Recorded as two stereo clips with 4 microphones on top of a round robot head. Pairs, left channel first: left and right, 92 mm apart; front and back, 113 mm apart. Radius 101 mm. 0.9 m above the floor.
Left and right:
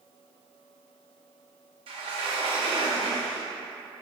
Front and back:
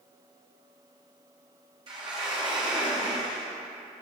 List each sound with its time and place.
1.9 s a sliding door: 125° right, 1.1 m